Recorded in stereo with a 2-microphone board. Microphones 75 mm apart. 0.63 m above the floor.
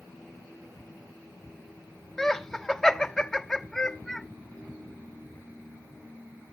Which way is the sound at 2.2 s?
5° left (ahead or behind).